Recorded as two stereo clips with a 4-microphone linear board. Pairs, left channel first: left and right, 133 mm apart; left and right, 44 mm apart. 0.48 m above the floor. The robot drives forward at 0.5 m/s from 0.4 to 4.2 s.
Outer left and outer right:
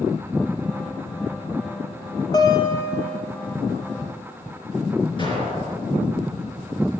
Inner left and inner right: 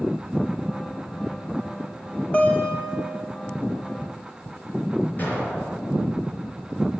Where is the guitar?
30° left (ahead or behind), 1.3 m; by 3.2 s 20° left (ahead or behind), 1.7 m.